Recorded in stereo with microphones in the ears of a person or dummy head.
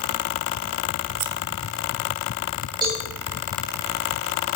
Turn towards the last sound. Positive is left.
turn(degrees=-25)  # may be behind; listen again after turning